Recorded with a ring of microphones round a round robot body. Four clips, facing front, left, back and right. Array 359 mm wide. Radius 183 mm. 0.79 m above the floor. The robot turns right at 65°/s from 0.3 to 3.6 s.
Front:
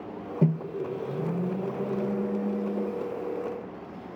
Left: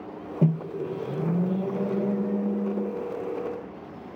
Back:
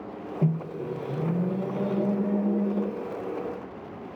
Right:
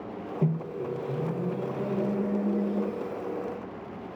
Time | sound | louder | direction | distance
0.4 | a microwave | left 4 dB, front 2 dB | 50° left | 0.8 m